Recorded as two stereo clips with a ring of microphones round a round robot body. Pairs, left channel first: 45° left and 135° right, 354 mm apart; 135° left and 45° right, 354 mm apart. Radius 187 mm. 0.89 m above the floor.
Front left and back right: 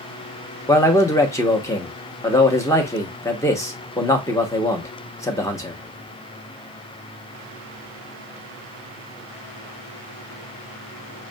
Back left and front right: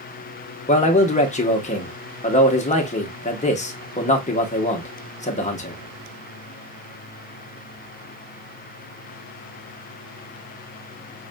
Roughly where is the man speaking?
Left.